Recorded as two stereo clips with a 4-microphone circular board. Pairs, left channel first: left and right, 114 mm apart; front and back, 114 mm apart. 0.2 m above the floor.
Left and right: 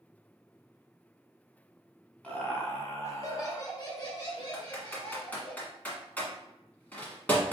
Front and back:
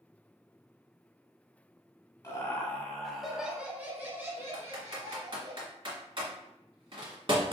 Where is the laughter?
25° left, 1.1 m; by 5.5 s 130° left, 2 m.